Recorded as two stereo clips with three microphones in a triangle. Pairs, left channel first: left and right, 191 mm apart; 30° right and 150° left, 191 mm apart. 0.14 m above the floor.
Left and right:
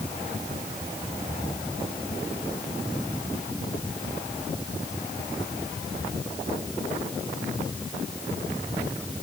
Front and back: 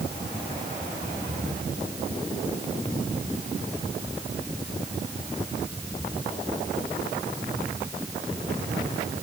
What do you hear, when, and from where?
Only background noise.